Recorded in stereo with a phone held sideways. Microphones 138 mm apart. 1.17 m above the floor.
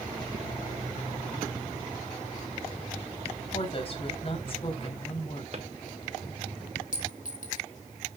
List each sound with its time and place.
3.5 s a woman speaking: 40° left (ahead or behind), 3 m
5.5 s a drawer: 45° right (ahead or behind), 1.4 m
6.9 s a clink: 65° left (ahead or behind), 1.4 m